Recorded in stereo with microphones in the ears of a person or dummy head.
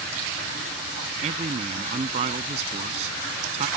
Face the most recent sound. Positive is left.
turn(degrees=-35)  # may be behind; listen again after turning